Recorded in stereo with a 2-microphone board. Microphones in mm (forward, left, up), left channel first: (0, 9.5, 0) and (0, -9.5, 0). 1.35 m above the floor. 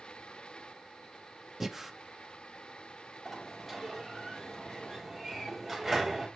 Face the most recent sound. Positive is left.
turn(degrees=-5)  # may be behind; listen again after turning